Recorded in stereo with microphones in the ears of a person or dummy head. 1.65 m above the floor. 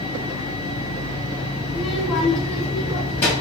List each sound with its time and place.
1.7 s a child speaking: 10° right (ahead or behind), 0.8 m; by 3.3 s 35° left (ahead or behind), 1.1 m